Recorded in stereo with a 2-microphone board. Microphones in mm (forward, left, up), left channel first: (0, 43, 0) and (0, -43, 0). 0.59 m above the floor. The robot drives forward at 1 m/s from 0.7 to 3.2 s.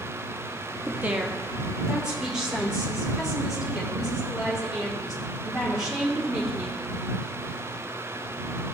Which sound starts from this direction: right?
A woman speaking, at 0.8 s.